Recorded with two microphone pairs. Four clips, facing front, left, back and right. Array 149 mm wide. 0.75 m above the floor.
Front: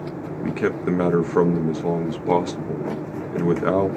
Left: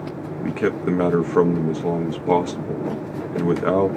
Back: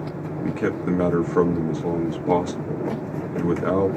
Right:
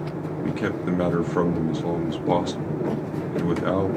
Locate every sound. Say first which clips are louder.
0.4 s a man speaking: left 5 dB, front 1 dB; 55° left, 0.6 m